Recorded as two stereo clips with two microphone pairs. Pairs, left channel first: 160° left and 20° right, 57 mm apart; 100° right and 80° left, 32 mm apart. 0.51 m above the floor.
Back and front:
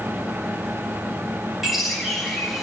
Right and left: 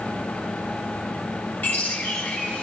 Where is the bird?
110° right, 3.5 m.